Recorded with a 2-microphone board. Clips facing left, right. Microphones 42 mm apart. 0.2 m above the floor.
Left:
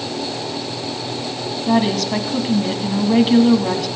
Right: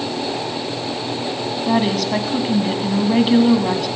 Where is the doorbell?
No doorbell in this recording.